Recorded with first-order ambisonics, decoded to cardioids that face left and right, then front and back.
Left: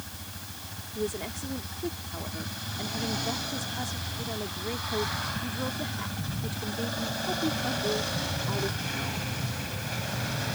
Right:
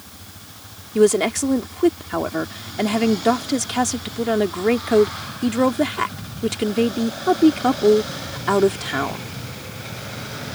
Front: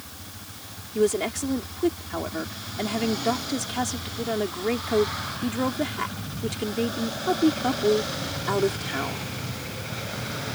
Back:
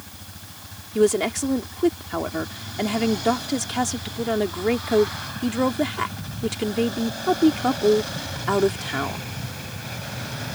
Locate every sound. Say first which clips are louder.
0.9 s a woman speaking: right 17 dB, back 4 dB; 105° right